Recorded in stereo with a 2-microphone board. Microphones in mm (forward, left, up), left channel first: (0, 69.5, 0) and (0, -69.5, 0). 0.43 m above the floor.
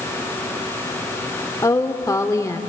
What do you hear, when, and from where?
1.6 s a woman speaking: 25° left (ahead or behind), 0.8 m